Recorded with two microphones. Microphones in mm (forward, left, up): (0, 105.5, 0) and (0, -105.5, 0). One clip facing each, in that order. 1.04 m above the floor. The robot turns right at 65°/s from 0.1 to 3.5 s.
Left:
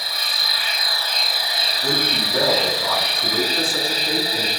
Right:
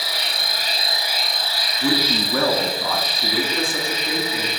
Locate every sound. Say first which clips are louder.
0.0 s an insect: right 4 dB; 75° right, 0.7 m; by 4.6 s 145° left, 0.7 m
1.8 s a man speaking: right 4 dB; 125° right, 2 m; by 4.5 s 15° right, 2 m